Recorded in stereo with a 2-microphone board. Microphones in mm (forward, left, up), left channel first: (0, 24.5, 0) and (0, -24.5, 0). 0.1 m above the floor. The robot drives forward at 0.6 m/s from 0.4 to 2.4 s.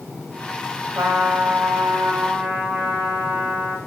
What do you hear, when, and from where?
0.9 s a trumpet: 50° right (ahead or behind), 1.4 m; by 3.8 s 30° right (ahead or behind), 2 m